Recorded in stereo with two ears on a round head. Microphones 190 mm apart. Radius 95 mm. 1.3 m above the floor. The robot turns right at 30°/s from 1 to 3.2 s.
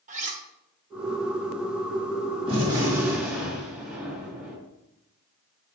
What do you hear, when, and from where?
0.1 s cutlery clinking: 35° right (ahead or behind), 1.1 m
2.5 s a gunshot: 25° right (ahead or behind), 2 m; by 4.6 s centre (ahead or behind), 2 m